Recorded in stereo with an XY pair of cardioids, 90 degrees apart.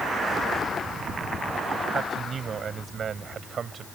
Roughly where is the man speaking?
Ahead right.